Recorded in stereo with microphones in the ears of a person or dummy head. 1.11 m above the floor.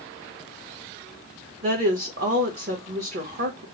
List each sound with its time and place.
1.6 s a woman speaking: 45° right (ahead or behind), 1.0 m